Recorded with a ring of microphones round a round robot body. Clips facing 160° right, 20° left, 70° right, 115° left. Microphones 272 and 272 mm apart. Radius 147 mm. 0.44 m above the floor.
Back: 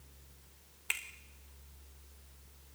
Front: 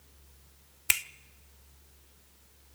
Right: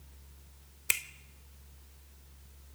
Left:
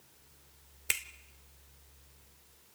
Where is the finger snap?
15° left, 1.1 m.